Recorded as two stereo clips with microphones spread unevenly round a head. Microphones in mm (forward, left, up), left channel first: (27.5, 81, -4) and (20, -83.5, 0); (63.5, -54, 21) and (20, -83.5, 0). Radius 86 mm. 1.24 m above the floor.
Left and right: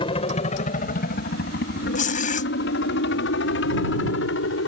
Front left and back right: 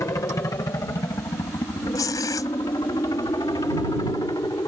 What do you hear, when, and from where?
0.0 s a helicopter: 50° left; by 4.7 s 90° left
1.9 s tearing paper: 45° left